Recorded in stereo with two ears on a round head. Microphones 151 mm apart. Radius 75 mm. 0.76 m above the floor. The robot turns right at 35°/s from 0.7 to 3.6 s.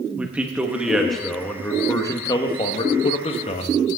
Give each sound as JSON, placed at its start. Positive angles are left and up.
{"t": 0.2, "sound": "a man speaking", "azimuth_deg": -10, "distance_m": 0.9}